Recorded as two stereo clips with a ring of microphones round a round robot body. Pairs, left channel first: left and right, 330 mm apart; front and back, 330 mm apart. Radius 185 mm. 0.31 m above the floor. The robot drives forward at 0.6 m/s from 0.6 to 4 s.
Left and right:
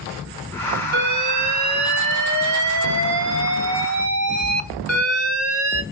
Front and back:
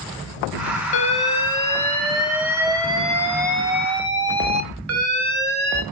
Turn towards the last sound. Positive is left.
turn(degrees=-125)